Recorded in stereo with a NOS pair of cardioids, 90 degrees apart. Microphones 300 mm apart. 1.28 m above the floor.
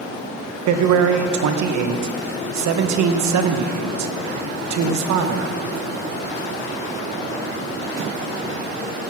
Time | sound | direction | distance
0.7 | a man speaking | 70° right | 1.1 m